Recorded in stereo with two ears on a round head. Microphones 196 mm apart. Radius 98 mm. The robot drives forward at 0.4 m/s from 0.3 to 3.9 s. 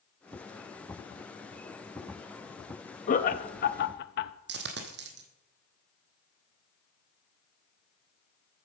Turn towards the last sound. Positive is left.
turn(degrees=-50)  # may be behind; listen again after turning